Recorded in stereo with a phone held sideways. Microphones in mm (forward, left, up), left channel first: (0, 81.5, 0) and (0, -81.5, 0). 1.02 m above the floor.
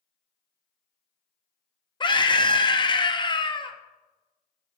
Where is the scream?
30° left (ahead or behind), 0.5 m.